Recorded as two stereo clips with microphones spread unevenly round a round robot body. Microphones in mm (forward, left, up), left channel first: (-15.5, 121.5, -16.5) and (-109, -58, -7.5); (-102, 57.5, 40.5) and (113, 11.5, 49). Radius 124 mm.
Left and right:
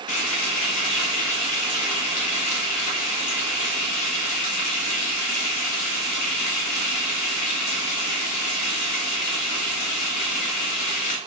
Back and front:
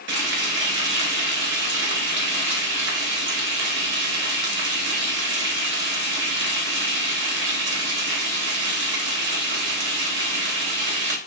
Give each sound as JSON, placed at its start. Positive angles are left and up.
{"t": 0.1, "sound": "frying", "azimuth_deg": 30, "distance_m": 0.9}